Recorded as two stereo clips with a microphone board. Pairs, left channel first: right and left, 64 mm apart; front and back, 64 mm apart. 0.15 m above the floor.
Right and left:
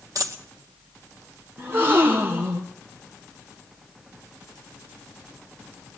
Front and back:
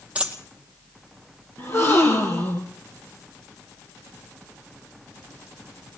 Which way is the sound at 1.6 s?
40° left.